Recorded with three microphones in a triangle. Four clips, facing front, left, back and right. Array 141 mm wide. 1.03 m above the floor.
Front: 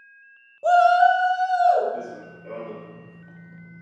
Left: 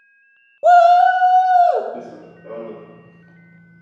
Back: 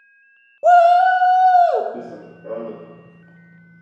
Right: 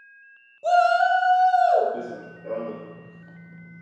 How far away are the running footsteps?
About 1.5 m.